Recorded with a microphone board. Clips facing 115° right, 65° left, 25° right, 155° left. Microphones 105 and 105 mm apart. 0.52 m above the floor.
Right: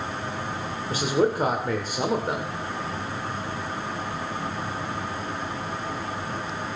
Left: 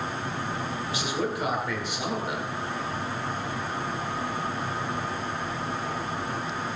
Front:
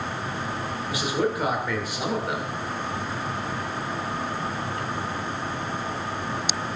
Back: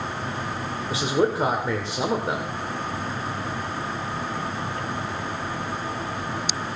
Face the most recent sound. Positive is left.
turn(degrees=-150)